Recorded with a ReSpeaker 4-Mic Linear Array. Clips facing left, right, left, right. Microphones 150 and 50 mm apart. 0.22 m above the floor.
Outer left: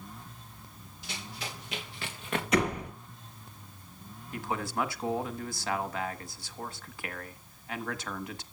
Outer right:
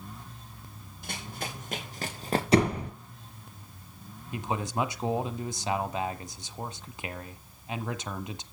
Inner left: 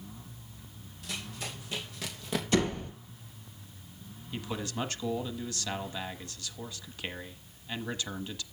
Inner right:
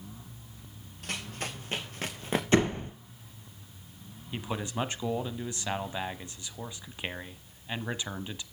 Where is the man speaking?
20° right (ahead or behind), 1.2 m.